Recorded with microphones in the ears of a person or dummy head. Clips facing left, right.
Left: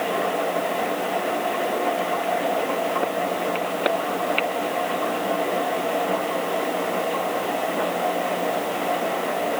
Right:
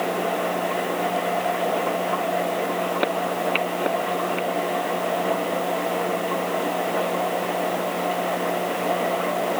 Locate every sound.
Only background noise.